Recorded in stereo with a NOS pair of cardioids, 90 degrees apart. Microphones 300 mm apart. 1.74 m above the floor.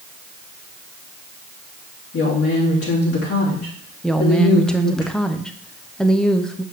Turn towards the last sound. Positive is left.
turn(degrees=0)